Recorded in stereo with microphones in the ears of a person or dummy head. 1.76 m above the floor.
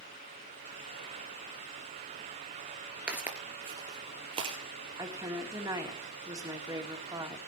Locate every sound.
3.1 s footsteps: 10° right (ahead or behind), 2 m; by 4.6 s 35° right (ahead or behind), 3 m
5.0 s a woman speaking: 15° right (ahead or behind), 3 m